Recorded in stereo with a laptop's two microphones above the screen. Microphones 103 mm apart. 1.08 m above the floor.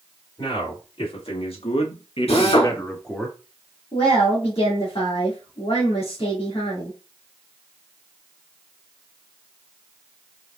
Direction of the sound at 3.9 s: 85° left.